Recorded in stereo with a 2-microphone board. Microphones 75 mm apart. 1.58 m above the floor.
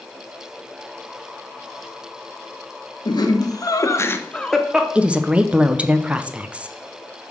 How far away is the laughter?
About 1.3 m.